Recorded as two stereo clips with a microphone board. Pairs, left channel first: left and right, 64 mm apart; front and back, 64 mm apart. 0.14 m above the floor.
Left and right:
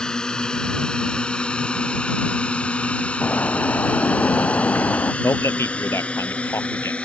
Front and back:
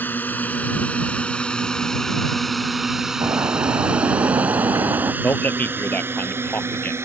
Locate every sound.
0.0 s a drone: 20° left; by 7.0 s 155° left
3.2 s a bird: 150° left
5.2 s a man speaking: 55° left